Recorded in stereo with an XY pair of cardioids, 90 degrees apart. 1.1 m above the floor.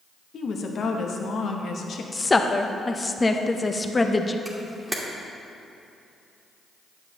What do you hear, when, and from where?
0.3 s a woman speaking: 60° left, 0.9 m
2.1 s a woman speaking: 25° left, 0.6 m
4.5 s a camera shutter: 10° right, 1.5 m